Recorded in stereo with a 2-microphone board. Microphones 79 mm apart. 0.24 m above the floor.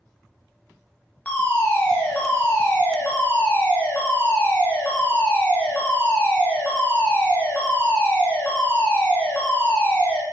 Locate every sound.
1.2 s a fire alarm: 20° left (ahead or behind), 2.5 m